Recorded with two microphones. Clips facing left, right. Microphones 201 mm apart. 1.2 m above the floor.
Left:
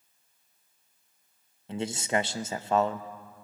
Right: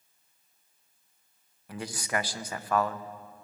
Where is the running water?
No running water in this recording.